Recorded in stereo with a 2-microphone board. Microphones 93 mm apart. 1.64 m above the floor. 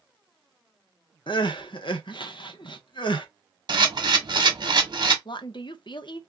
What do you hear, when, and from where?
1.3 s crying: 60° left (ahead or behind), 0.6 m
3.7 s a camera shutter: 50° right (ahead or behind), 1.1 m
5.2 s a woman speaking: 60° left (ahead or behind), 0.5 m